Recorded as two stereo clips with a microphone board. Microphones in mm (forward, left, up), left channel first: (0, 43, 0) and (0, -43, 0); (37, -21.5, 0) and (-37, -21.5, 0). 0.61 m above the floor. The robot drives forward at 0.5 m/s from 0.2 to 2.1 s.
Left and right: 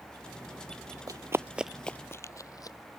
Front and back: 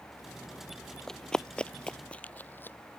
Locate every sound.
1.1 s running footsteps: 80° right; by 2.8 s 55° left